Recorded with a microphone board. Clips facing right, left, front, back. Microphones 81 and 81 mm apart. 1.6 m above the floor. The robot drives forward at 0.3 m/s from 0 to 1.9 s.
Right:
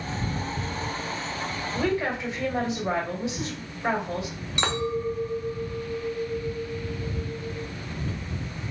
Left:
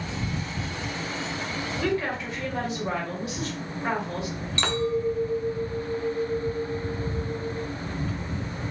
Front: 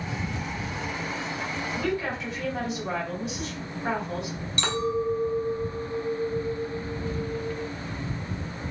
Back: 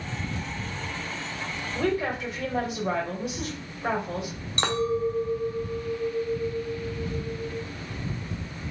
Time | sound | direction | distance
1.8 | a woman speaking | 155° right | 1.5 m
4.6 | a clink | 155° right | 0.6 m